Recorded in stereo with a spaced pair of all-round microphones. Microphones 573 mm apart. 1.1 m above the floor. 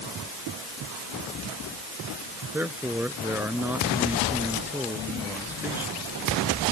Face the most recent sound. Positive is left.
turn(degrees=-5)  # may be behind; listen again after turning